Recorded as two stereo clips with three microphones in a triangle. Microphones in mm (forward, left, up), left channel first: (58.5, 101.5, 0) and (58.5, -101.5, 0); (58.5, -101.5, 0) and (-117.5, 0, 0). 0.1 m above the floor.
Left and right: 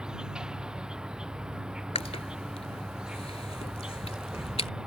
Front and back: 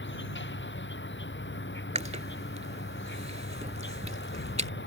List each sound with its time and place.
0.0 s an insect: 5° right
1.9 s chewing: 125° left